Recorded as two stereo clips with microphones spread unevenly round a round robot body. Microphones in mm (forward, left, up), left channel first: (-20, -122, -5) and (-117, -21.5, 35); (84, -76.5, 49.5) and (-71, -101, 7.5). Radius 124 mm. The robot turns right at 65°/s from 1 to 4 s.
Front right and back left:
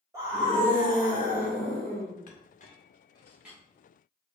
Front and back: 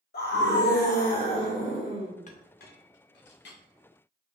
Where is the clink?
35° right, 1.3 m; by 3.6 s 55° left, 1.3 m.